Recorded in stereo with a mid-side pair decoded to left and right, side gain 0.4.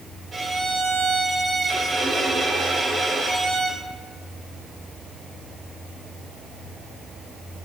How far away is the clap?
No clap in this recording.